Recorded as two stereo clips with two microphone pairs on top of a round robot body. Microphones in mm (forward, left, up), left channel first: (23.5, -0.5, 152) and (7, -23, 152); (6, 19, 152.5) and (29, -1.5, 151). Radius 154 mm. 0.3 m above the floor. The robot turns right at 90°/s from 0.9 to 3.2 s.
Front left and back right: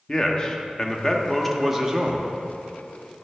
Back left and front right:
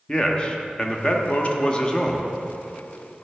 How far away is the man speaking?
About 1.0 m.